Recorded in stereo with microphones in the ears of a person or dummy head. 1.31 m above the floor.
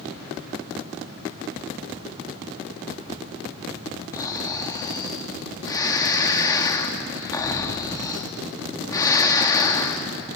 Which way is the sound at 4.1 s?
20° left (ahead or behind).